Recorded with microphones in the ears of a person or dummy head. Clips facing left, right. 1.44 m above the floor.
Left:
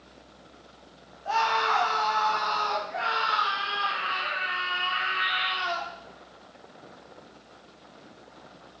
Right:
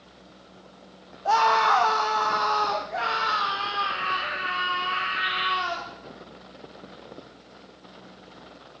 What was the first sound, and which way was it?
A scream, 55° right (ahead or behind).